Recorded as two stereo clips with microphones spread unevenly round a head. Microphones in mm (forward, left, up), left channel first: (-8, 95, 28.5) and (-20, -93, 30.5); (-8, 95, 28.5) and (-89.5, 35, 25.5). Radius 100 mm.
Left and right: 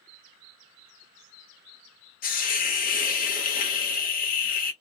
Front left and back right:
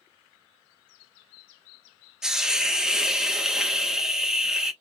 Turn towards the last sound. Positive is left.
turn(degrees=130)